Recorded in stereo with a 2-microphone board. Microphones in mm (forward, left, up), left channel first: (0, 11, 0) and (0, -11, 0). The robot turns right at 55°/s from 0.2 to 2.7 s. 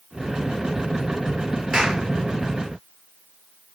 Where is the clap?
35° right (ahead or behind), 5.5 m; by 2.0 s 15° right (ahead or behind), 5.5 m.